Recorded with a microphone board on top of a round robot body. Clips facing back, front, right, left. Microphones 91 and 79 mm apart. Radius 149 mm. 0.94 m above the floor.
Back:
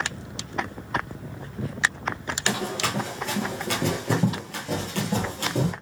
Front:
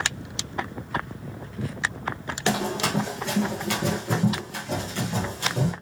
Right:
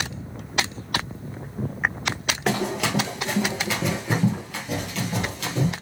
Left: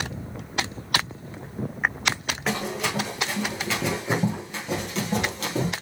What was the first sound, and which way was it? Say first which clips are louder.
Running footsteps: front 3 dB, right 3 dB; 60° right.